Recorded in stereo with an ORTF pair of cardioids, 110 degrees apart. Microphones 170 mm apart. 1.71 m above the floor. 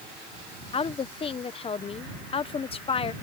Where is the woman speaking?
35° left.